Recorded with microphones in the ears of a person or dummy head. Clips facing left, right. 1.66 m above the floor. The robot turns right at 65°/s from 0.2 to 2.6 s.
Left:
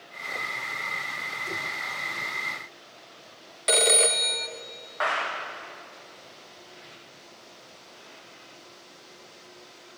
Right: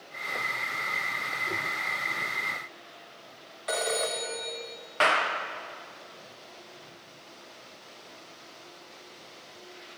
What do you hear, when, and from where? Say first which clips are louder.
3.7 s a phone ringing: left 5 dB; 25° left (ahead or behind), 0.5 m
5.0 s a clap: right 3 dB; 35° right (ahead or behind), 0.7 m